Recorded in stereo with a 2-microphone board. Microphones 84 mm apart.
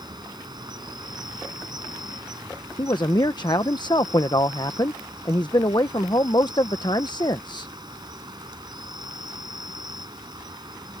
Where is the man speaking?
60° left (ahead or behind).